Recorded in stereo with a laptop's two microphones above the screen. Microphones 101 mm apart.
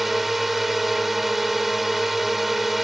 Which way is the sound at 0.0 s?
Centre (ahead or behind).